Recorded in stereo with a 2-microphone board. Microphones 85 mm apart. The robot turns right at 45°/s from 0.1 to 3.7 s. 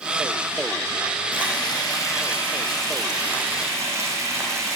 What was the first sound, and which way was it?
Frying, 105° left.